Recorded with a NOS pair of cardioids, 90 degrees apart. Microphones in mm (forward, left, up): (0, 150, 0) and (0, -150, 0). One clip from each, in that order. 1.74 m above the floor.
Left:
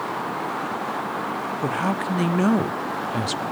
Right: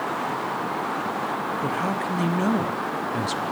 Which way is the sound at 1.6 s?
15° left.